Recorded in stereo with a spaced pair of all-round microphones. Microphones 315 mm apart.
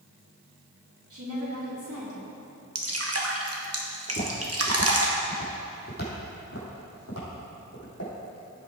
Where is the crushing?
I don't hear crushing.